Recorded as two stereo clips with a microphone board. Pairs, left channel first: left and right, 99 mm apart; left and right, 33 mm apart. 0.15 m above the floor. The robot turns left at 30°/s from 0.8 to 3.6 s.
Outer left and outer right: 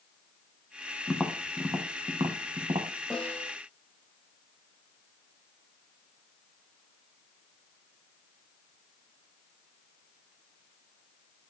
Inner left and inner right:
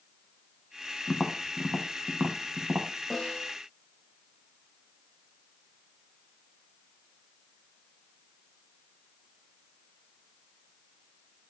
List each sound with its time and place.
1.1 s tapping: 10° right (ahead or behind), 1.6 m; by 2.9 s 65° right (ahead or behind), 1.6 m
3.1 s a snare drum: 5° left (ahead or behind), 6.5 m; by 3.5 s 20° left (ahead or behind), 6.5 m